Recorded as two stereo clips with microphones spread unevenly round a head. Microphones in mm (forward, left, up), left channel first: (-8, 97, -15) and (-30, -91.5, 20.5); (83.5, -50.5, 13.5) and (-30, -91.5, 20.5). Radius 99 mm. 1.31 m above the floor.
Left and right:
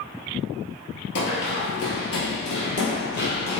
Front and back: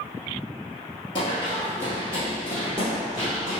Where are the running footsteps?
70° left, 1.7 m; by 3.6 s 120° left, 2 m.